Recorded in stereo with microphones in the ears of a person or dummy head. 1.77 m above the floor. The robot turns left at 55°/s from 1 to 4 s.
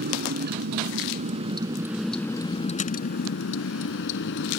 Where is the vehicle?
125° right; by 4.6 s 70° left.